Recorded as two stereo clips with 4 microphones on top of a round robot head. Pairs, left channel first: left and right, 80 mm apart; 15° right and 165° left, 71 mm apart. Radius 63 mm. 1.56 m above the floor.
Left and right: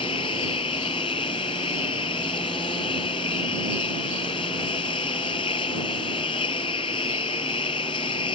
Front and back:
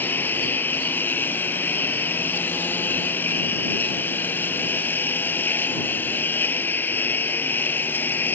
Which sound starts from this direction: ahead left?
A lawn mower, at 0.0 s.